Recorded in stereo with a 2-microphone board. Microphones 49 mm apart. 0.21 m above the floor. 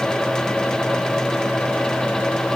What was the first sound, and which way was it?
Only background noise.